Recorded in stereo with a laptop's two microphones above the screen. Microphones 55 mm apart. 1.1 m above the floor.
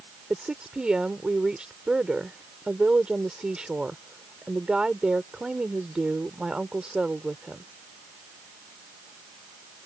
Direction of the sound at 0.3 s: 15° right (ahead or behind).